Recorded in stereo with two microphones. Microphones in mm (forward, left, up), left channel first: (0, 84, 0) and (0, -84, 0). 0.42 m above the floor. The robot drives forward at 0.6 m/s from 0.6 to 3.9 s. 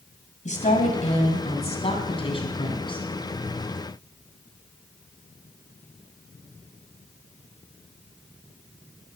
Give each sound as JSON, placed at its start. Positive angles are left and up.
{"t": 0.5, "sound": "a woman speaking", "side_deg": 45, "distance_m": 2.0}